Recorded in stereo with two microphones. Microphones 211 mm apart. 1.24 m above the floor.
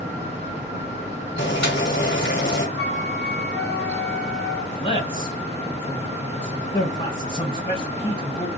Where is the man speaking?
40° left (ahead or behind), 1.5 m.